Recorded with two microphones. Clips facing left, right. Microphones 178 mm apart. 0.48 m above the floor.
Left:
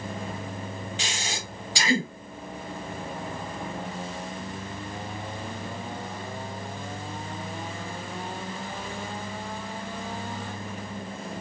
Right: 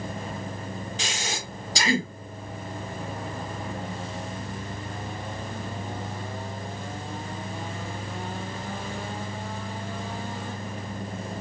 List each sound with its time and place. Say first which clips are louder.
1.0 s breathing: right 1 dB; 40° right (ahead or behind), 1.6 m